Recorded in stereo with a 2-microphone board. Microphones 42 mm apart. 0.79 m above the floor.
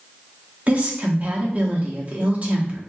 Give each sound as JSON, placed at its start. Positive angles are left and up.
{"t": 0.7, "sound": "a woman speaking", "side_deg": -35, "distance_m": 0.9}